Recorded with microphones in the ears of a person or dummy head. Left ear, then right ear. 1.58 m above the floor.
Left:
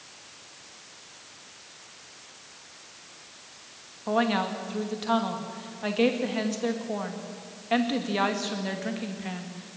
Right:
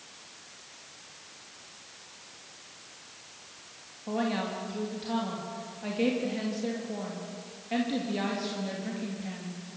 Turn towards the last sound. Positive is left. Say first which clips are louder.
# left 6 dB
turn(degrees=40)  # may be behind; listen again after turning